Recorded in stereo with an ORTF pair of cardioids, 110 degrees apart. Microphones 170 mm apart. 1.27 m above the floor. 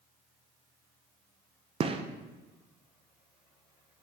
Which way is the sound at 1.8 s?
35° right.